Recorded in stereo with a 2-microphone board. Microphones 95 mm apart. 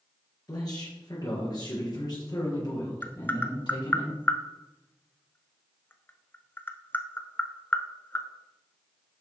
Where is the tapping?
20° left (ahead or behind), 0.8 m.